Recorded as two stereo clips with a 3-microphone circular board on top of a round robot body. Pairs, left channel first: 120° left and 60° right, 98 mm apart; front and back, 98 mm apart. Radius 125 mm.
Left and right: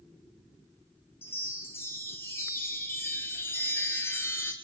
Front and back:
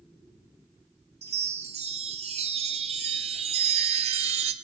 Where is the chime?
170° right, 0.7 m.